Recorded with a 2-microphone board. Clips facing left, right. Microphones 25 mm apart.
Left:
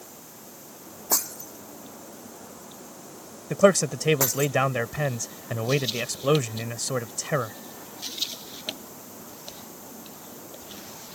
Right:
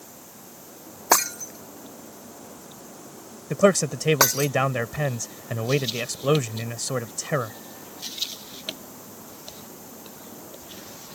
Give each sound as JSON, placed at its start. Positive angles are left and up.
{"t": 1.1, "sound": "breaking glass", "side_deg": -70}
{"t": 3.5, "sound": "a man speaking", "side_deg": 0}